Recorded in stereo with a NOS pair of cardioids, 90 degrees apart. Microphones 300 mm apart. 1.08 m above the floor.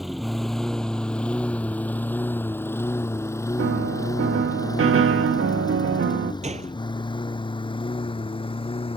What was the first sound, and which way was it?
A lawn mower, straight ahead.